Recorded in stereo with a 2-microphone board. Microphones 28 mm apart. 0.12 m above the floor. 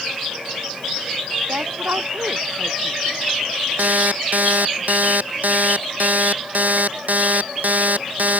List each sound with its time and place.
1.5 s a woman speaking: 85° right
3.8 s an alarm clock: 70° right (ahead or behind)